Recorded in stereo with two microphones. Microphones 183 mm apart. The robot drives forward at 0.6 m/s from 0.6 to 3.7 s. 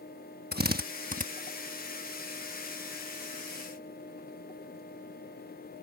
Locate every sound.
0.5 s a drill: 60° right (ahead or behind); by 1.3 s 50° right (ahead or behind)